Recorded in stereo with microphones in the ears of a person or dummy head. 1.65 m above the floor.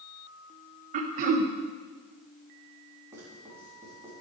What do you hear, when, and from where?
0.9 s throat clearing: 50° right (ahead or behind), 0.7 m
3.1 s writing: 20° right (ahead or behind), 3 m